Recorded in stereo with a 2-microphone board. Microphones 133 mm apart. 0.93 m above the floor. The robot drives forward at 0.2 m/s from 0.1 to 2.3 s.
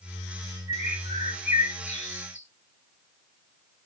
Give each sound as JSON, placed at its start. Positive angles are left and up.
{"t": 0.7, "sound": "a bird", "side_deg": 80, "distance_m": 3.0}